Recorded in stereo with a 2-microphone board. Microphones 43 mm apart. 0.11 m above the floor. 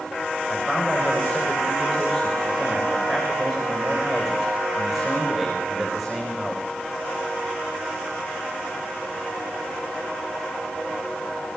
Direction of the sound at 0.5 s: 5° right (ahead or behind).